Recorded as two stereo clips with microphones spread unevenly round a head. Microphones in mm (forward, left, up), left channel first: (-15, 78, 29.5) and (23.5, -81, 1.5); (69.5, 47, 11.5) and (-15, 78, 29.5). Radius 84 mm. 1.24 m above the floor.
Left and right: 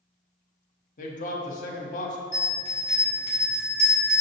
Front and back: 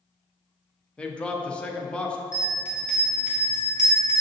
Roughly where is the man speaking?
Ahead left.